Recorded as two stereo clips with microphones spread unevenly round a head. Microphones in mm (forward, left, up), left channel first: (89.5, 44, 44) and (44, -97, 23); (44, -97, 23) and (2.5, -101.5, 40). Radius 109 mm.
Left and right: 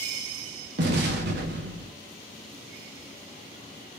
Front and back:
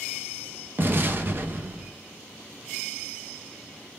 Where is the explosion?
135° right, 0.8 m.